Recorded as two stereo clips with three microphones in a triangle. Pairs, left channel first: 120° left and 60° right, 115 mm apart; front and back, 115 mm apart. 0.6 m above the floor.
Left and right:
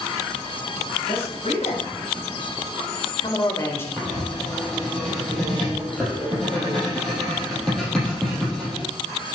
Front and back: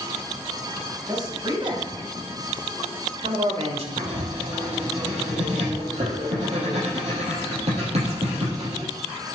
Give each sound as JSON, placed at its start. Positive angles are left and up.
{"t": 1.1, "sound": "a man speaking", "azimuth_deg": 130, "distance_m": 4.5}
{"t": 4.0, "sound": "writing", "azimuth_deg": -155, "distance_m": 5.5}